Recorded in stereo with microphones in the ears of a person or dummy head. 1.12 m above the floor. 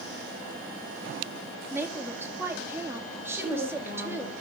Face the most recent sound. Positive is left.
turn(degrees=-55)  # may be behind; listen again after turning